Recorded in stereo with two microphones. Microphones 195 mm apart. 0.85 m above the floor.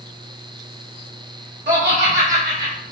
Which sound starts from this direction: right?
Laughter, at 1.7 s.